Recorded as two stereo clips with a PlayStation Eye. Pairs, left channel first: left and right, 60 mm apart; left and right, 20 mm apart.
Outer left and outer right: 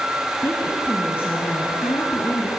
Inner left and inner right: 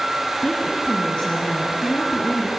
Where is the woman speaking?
45° left (ahead or behind), 3 m; by 2.5 s 40° left (ahead or behind), 4 m.